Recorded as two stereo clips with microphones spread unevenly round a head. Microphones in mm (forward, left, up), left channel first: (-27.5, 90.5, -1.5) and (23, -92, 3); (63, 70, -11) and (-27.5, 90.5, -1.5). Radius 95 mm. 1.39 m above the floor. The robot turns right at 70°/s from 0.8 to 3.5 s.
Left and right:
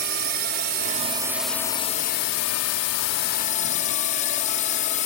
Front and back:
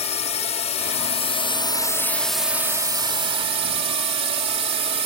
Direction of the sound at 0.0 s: 30° right.